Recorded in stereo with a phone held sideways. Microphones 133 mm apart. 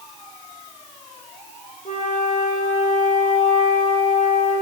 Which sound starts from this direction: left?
A flute, at 1.9 s.